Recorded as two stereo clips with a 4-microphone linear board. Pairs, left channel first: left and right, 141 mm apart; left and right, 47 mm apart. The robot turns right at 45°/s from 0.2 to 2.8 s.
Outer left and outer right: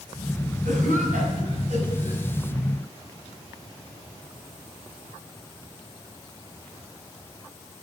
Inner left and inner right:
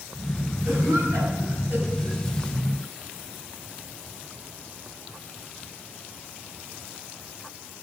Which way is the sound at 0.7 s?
85° right.